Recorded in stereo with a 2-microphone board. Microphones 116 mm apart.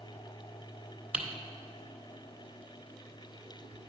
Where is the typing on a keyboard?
15° right (ahead or behind), 1.2 m.